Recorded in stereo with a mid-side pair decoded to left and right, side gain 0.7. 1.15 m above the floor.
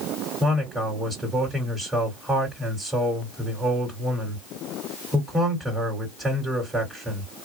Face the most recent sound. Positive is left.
turn(degrees=-10)